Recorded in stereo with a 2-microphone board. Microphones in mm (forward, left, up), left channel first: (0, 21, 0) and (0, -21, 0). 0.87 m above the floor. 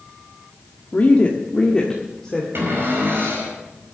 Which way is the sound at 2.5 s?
70° right (ahead or behind).